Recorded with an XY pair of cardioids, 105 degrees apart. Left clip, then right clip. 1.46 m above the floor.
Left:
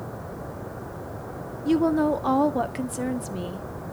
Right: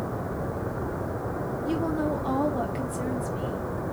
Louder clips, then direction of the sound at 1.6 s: Left 7 dB; 50° left.